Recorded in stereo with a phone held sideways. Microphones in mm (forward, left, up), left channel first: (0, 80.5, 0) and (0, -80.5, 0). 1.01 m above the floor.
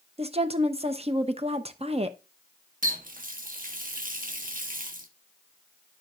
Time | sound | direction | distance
0.2 | a woman speaking | 40° right (ahead or behind) | 0.8 m
2.8 | a running tap | 60° right (ahead or behind) | 1.1 m